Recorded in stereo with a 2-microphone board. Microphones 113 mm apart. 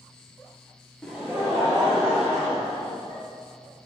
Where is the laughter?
10° left (ahead or behind), 0.7 m; by 3.2 s 50° right (ahead or behind), 3.5 m.